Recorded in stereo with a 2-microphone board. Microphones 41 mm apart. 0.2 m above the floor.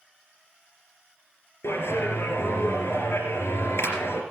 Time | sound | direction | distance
1.6 | a clap | 75° left (ahead or behind) | 3 m